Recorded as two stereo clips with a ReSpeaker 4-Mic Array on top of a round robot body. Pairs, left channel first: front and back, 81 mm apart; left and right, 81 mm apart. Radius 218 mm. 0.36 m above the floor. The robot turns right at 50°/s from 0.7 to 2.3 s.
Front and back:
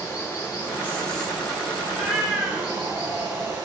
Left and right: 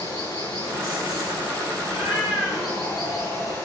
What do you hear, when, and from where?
0.0 s running water: 60° left, 8 m; by 3.7 s 140° left, 8 m
1.8 s a cat meowing: 85° left, 4 m; by 3.6 s 110° left, 4 m